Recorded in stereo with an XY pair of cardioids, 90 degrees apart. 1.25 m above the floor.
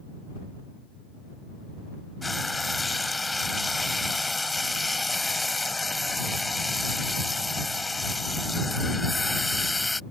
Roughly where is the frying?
Ahead.